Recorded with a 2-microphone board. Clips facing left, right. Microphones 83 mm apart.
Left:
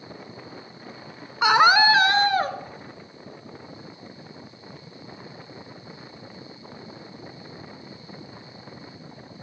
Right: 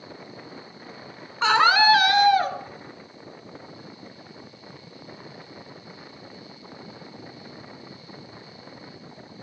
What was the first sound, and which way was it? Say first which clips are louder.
A scream: left 1 dB; 10° left (ahead or behind).